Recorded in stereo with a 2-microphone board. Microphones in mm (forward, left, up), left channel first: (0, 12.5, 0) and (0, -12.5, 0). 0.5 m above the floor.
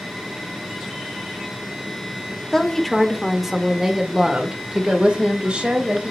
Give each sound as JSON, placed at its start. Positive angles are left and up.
{"t": 2.5, "sound": "a woman speaking", "side_deg": 15, "distance_m": 1.4}